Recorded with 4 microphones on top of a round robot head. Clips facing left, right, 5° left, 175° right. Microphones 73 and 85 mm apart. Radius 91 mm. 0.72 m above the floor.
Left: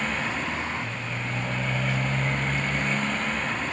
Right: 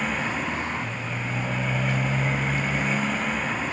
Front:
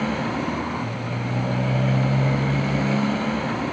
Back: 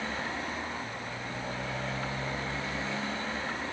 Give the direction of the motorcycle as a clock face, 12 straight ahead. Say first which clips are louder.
Right 1 dB, front 10 dB; 12 o'clock.